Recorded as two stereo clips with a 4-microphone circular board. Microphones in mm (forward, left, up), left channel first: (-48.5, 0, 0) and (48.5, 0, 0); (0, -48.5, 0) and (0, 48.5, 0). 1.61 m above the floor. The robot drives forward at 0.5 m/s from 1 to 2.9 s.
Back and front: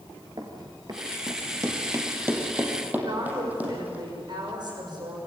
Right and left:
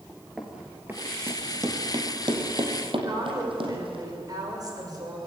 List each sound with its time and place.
0.4 s running footsteps: 5° left, 2 m; by 4.0 s 75° left, 5 m
3.0 s a woman speaking: 40° left, 6 m